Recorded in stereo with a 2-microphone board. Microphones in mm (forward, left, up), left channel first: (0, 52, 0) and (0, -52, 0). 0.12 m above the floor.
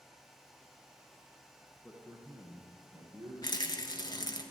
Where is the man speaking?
10° right (ahead or behind), 1.2 m; by 4.4 s 55° right (ahead or behind), 2.5 m.